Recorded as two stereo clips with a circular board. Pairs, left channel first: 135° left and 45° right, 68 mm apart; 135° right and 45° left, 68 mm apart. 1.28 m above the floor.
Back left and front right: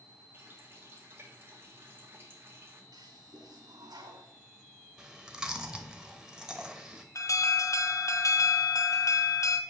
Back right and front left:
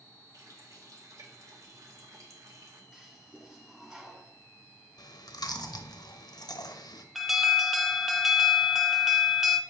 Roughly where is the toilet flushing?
Ahead right.